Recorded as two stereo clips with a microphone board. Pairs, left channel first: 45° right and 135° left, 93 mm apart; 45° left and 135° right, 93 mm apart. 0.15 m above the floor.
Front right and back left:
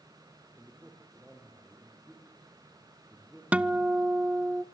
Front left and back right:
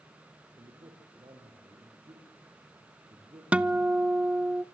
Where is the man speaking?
150° right, 4 m.